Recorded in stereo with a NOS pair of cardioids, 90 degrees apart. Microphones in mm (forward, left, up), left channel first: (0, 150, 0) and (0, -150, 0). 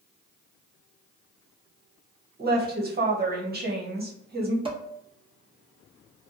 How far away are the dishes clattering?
About 0.8 m.